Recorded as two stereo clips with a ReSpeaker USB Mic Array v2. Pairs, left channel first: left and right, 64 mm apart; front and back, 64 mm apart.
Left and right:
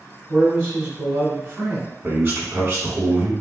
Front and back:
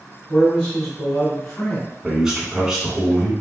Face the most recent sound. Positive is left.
turn(degrees=-105)